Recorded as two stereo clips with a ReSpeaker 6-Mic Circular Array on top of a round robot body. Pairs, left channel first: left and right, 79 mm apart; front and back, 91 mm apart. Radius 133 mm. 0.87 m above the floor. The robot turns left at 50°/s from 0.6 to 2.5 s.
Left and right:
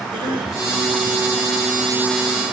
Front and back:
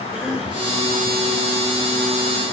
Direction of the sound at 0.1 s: 95° right.